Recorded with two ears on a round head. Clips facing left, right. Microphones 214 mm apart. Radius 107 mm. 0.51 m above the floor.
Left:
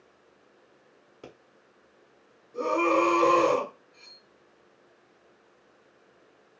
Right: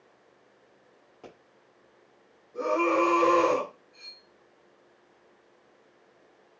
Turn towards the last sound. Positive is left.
turn(degrees=0)  # may be behind; listen again after turning